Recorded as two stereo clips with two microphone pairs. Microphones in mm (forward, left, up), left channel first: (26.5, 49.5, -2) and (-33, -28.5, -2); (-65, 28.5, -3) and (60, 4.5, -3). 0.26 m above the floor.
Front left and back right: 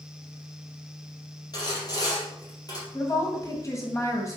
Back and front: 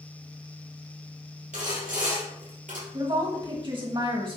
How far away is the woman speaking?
About 1.2 m.